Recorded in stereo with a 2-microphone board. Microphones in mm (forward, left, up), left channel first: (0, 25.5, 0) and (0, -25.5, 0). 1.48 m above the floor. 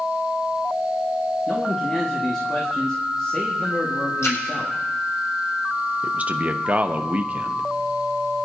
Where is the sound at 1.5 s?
20° left (ahead or behind), 1.6 m.